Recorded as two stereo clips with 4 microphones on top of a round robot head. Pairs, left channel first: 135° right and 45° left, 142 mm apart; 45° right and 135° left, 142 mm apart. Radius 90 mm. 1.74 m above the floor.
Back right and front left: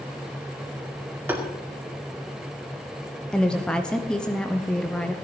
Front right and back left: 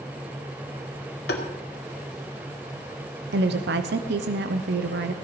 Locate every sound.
1.3 s tapping: 35° right, 2.0 m
3.3 s a woman speaking: 140° left, 0.9 m